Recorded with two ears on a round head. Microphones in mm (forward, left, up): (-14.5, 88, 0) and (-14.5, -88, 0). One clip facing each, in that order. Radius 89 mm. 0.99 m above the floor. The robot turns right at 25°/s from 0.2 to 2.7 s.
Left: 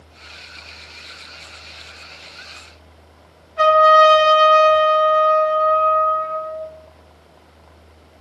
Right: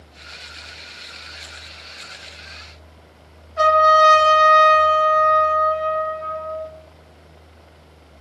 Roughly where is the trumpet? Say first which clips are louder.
Left 3 dB; right.